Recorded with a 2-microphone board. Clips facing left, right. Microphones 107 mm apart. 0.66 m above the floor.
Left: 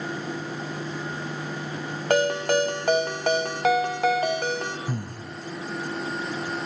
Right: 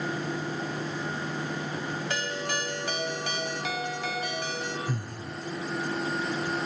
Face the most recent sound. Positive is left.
turn(degrees=50)  # may be behind; listen again after turning